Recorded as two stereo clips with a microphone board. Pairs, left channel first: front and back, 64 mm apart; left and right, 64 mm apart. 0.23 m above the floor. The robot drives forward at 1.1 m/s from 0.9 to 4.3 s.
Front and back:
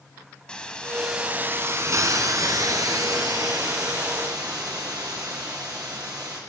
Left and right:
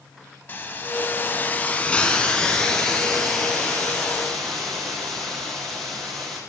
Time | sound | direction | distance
0.5 | a hiss | 65° left | 0.7 m